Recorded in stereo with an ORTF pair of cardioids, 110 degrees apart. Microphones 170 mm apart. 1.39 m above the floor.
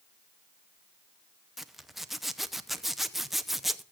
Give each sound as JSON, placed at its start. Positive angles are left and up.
{"t": 1.6, "sound": "a zipper", "azimuth_deg": 0, "distance_m": 0.8}